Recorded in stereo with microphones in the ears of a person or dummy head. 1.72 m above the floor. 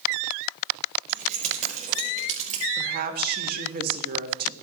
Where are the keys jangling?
45° right (ahead or behind), 6 m; by 2.7 s 40° right (ahead or behind), 4.5 m.